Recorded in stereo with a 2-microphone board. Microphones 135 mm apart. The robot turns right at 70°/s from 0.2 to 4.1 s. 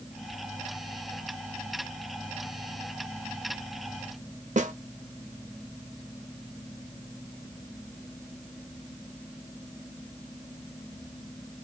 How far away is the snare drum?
About 0.5 m.